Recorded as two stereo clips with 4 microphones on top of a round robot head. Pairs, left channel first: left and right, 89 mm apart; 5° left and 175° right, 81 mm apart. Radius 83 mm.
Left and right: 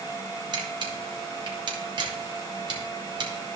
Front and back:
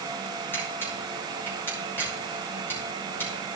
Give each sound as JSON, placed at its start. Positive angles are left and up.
{"t": 0.5, "sound": "a camera shutter", "azimuth_deg": -65, "distance_m": 2.5}